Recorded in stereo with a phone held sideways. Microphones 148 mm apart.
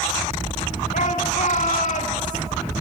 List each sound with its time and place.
0.9 s a shout: 60° left (ahead or behind), 2.5 m